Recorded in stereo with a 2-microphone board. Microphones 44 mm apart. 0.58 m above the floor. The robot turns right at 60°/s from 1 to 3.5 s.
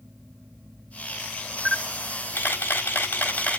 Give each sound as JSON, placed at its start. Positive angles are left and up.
{"t": 1.6, "sound": "a camera shutter", "azimuth_deg": 15, "distance_m": 1.7}